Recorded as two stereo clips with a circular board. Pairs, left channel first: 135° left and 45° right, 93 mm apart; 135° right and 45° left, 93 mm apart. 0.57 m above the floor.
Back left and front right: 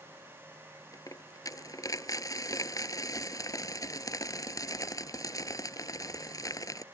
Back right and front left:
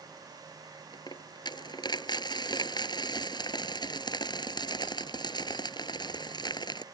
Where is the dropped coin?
175° right.